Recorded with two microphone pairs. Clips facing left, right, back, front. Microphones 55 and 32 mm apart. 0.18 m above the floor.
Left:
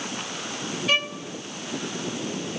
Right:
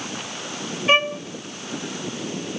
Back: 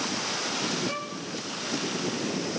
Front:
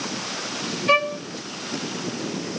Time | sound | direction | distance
0.9 | a violin | 30° right | 0.6 m